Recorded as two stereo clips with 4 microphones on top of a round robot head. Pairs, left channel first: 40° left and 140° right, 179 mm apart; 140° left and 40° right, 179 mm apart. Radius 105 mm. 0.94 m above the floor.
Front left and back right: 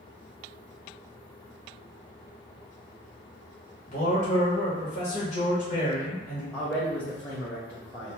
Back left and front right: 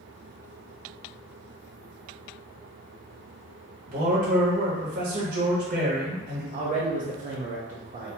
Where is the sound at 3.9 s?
Straight ahead, 0.9 m.